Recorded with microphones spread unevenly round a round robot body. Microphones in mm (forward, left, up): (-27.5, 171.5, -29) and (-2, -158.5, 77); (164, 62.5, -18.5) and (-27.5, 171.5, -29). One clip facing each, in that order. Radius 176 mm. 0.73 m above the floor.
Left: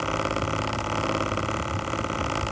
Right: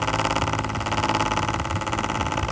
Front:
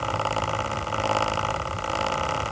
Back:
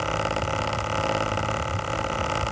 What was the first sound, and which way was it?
Only background noise.